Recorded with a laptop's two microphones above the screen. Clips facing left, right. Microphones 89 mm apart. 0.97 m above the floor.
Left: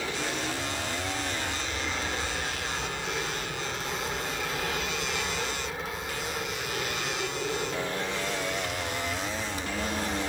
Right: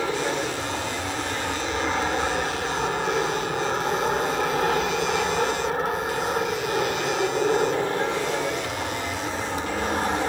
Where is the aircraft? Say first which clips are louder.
Right 7 dB; 55° right (ahead or behind).